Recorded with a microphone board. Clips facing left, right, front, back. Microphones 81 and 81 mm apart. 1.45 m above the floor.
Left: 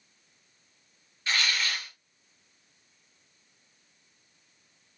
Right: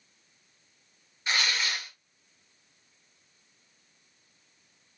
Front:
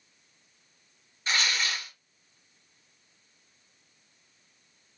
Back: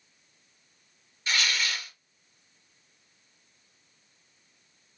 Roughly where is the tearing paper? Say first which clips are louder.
Even, even; ahead right.